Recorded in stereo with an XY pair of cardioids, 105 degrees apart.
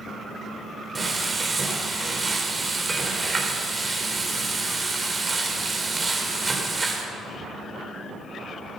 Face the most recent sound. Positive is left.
turn(degrees=-30)